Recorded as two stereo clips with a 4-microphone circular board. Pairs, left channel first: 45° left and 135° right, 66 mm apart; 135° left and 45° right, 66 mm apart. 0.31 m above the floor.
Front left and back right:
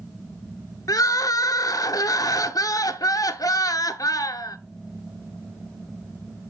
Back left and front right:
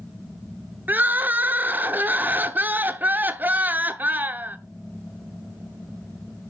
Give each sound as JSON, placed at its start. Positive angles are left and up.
{"t": 0.9, "sound": "crying", "azimuth_deg": 20, "distance_m": 0.7}